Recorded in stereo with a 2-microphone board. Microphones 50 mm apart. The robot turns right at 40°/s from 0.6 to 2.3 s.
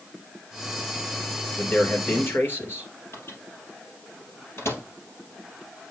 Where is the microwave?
60° left (ahead or behind), 2 m.